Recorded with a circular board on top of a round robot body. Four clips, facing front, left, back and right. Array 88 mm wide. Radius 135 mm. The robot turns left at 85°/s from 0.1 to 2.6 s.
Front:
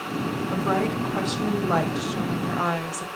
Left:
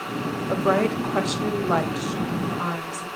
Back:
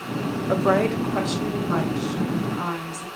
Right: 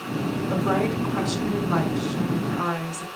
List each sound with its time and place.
0.5 s a woman speaking: 165° left, 2.5 m; by 3.1 s 15° right, 2.5 m